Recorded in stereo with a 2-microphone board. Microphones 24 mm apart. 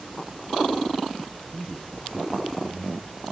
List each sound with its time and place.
1.5 s a man speaking: 20° left (ahead or behind), 2.5 m; by 3.2 s 25° left (ahead or behind), 3.5 m